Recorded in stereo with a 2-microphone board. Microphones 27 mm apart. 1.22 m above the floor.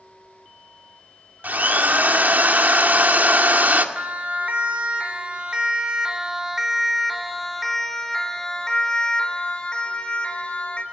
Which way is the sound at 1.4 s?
70° right (ahead or behind).